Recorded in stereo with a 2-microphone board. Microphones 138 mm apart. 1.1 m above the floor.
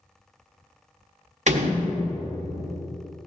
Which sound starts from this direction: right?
A door slam, at 1.5 s.